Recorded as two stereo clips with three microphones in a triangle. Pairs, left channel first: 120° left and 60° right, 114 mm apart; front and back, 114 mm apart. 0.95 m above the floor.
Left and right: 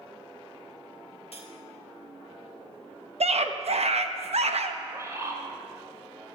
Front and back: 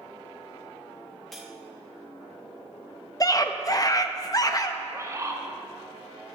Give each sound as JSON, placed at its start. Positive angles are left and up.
{"t": 1.3, "sound": "cutlery clinking", "azimuth_deg": 90, "distance_m": 1.6}
{"t": 3.2, "sound": "a scream", "azimuth_deg": -55, "distance_m": 0.9}
{"t": 4.8, "sound": "a bird", "azimuth_deg": -120, "distance_m": 1.3}